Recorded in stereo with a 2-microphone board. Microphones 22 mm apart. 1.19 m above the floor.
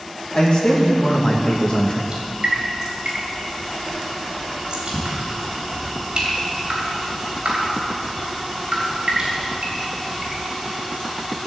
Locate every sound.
0.3 s a man speaking: 45° left (ahead or behind), 1.7 m
2.1 s dripping: 50° right (ahead or behind), 3.5 m